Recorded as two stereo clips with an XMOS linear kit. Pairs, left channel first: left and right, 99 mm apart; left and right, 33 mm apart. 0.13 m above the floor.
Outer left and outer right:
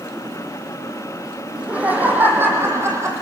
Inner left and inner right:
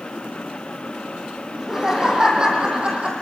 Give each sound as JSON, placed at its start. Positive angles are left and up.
{"t": 1.5, "sound": "laughter", "side_deg": -10, "distance_m": 5.0}